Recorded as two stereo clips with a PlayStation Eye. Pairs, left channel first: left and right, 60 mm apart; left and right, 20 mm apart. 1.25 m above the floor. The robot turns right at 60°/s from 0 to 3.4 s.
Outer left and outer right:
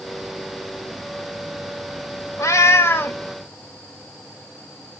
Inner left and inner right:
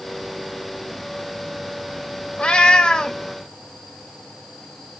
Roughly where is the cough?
No cough in this recording.